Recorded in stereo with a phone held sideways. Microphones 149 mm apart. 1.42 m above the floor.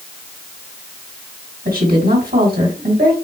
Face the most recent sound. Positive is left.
turn(degrees=-75)  # may be behind; listen again after turning